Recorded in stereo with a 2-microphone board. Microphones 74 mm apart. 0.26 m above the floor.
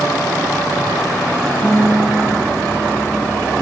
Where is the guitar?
65° left (ahead or behind), 4 m.